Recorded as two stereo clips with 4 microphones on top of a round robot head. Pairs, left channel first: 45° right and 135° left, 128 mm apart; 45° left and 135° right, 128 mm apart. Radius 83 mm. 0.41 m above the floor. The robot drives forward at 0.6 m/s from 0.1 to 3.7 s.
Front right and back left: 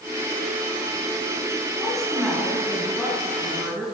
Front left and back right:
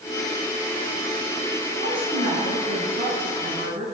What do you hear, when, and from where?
1.8 s a woman speaking: 130° right, 4 m; by 3.9 s 140° right, 4.5 m